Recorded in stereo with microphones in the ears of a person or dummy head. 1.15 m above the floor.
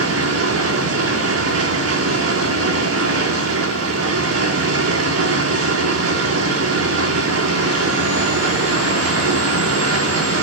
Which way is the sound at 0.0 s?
80° right.